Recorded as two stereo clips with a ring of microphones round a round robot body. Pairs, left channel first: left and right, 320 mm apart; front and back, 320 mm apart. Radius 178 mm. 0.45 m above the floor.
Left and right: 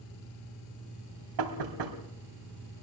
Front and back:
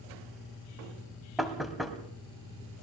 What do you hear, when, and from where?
1.4 s knocking: 90° right, 2.5 m